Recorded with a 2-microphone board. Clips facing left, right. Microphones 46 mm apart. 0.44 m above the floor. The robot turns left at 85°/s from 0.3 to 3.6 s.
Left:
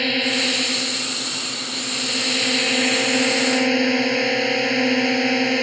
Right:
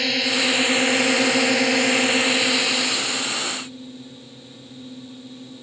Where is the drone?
5° left; by 5.6 s 85° left.